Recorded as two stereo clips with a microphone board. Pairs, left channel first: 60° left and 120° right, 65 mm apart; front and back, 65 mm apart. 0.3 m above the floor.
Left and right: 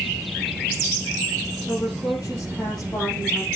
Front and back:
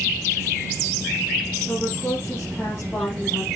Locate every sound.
1.7 s a woman speaking: 45° left, 8.5 m